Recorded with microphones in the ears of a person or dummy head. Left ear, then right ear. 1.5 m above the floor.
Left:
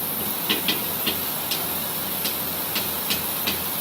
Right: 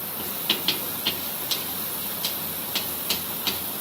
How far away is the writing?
About 2.5 m.